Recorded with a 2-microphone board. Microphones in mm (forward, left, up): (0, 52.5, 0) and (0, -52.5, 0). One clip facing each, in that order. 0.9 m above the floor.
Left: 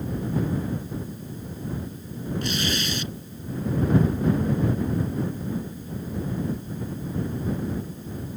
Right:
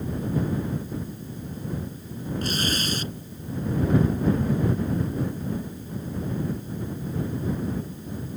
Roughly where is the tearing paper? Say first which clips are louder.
Right 1 dB; right.